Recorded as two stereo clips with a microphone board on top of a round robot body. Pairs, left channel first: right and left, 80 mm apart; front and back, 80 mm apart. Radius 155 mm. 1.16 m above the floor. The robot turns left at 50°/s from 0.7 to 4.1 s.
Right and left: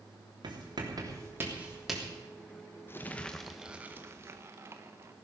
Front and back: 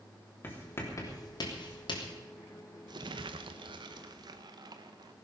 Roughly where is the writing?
Ahead left.